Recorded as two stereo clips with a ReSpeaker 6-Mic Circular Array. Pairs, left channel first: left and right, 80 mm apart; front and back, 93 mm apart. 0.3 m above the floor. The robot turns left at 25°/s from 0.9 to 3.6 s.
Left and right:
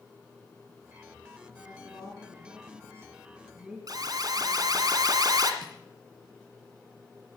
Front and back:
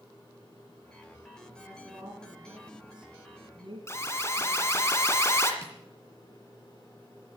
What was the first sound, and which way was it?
A woman speaking, 130° right.